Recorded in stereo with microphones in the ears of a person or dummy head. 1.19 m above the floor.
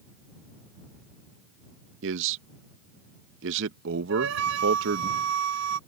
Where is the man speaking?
65° right (ahead or behind).